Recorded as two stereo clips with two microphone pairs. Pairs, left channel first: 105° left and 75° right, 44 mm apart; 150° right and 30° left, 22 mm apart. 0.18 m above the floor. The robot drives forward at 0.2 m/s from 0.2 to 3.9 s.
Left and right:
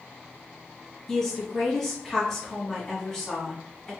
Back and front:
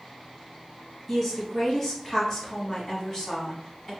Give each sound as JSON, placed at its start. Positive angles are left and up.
{"t": 1.1, "sound": "a woman speaking", "azimuth_deg": 165, "distance_m": 1.0}